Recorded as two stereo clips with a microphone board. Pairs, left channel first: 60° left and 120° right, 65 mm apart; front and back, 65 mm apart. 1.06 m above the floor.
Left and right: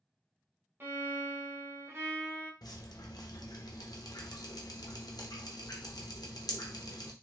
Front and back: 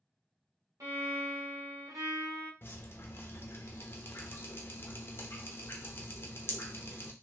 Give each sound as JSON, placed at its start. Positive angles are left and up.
{"t": 0.8, "sound": "a violin", "azimuth_deg": -165, "distance_m": 1.1}
{"t": 2.6, "sound": "dripping", "azimuth_deg": 55, "distance_m": 0.6}